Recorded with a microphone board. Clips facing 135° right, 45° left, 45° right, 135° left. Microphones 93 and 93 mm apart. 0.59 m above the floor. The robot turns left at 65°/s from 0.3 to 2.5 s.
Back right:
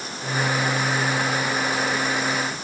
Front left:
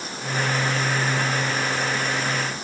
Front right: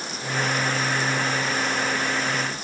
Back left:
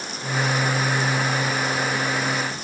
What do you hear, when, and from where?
Only background noise.